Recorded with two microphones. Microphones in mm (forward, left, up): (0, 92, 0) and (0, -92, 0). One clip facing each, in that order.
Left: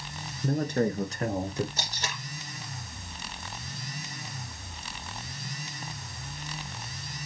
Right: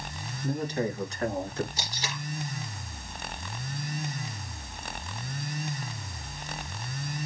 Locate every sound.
0.4 s a man speaking: 60° left (ahead or behind), 2.0 m; by 1.7 s 10° left (ahead or behind), 1.8 m
1.8 s tape being pulled: 50° left (ahead or behind), 3 m